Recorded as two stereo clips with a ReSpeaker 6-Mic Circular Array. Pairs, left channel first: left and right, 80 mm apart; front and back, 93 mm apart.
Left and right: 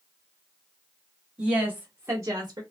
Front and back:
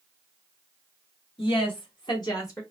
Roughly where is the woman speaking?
Ahead.